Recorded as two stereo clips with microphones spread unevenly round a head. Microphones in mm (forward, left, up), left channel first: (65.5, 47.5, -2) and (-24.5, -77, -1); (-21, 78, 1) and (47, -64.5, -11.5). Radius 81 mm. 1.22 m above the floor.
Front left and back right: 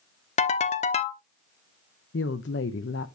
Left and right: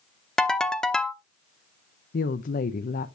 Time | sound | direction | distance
0.4 | a ringtone | 35° left | 0.9 m
2.1 | a woman speaking | 80° left | 0.7 m